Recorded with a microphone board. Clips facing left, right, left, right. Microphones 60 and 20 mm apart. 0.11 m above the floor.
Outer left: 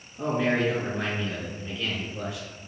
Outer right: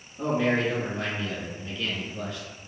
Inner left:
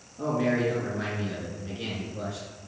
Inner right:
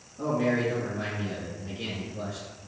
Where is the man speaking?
15° left (ahead or behind), 1.5 m.